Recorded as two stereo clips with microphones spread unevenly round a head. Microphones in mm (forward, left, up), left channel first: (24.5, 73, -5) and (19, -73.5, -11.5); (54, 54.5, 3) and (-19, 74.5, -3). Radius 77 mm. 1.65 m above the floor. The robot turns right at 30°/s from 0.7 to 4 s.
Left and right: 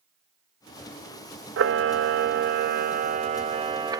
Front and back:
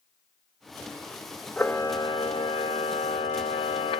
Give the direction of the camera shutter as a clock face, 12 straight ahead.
3 o'clock.